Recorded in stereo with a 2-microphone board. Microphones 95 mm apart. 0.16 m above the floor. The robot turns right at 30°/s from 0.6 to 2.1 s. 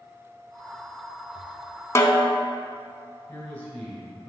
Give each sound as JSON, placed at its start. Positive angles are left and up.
{"t": 1.9, "sound": "a snare drum", "side_deg": 30, "distance_m": 0.6}
{"t": 3.3, "sound": "a man speaking", "side_deg": 20, "distance_m": 2.0}